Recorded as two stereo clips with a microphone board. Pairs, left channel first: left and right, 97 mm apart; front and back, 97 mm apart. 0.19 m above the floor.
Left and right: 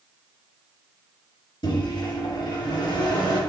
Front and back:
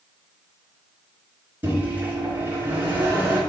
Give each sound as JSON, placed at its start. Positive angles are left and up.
{"t": 1.6, "sound": "a microwave", "azimuth_deg": 110, "distance_m": 2.0}